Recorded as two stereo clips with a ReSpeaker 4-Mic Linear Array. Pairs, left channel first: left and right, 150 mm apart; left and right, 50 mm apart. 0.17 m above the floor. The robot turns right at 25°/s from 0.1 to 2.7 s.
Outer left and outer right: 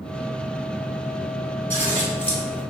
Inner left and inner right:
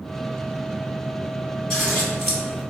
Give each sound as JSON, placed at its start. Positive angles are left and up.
{"t": 1.7, "sound": "scissors", "side_deg": 10, "distance_m": 1.6}